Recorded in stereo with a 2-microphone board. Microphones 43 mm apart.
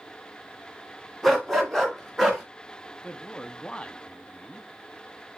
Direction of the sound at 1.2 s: 5° left (ahead or behind).